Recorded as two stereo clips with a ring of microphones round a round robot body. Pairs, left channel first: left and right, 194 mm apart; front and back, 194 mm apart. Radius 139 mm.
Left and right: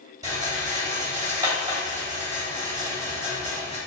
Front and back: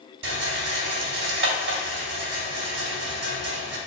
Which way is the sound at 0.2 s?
165° right.